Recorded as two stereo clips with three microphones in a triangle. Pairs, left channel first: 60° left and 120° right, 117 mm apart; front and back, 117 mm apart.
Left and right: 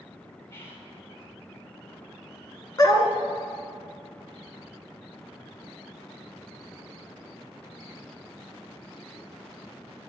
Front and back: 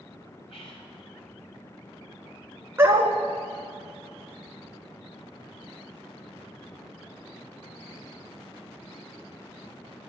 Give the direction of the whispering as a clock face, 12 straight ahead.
12 o'clock.